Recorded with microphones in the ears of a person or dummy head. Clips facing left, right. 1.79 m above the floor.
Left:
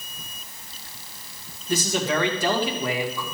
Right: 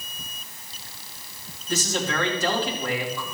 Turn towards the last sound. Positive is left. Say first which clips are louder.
# left 3 dB
turn(degrees=15)  # may be behind; listen again after turning